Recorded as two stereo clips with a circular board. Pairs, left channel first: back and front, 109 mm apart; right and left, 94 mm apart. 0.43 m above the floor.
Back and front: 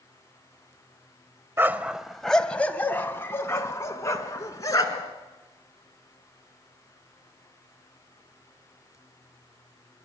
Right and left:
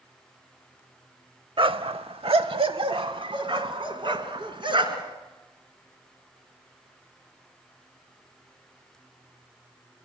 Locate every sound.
1.6 s a dog barking: 65° left, 0.5 m; by 5.1 s 125° left, 2 m